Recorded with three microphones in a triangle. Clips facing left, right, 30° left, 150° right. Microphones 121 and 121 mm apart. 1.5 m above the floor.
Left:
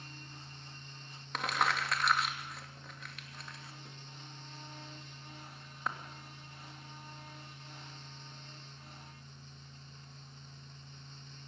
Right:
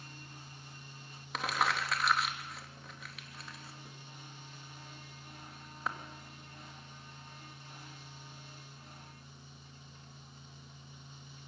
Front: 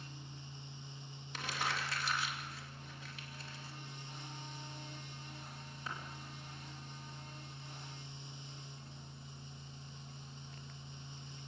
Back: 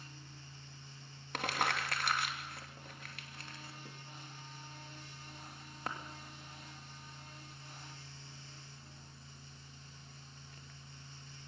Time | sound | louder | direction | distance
1.3 | crumpling | even, back 4 dB | straight behind | 2.5 m